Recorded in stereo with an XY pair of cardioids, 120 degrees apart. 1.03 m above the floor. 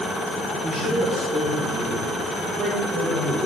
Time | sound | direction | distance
0.6 | a man speaking | 20° right | 3 m